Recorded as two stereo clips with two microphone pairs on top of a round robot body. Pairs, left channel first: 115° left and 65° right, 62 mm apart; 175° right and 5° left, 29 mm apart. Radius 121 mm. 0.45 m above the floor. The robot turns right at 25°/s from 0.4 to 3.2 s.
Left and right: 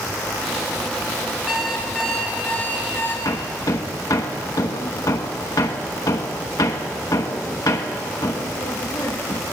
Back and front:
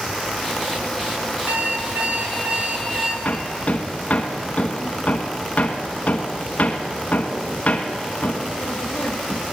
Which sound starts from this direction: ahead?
An alarm clock, at 1.5 s.